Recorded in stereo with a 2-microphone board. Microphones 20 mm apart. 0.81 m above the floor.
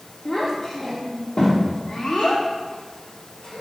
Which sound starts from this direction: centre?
A child speaking, at 0.2 s.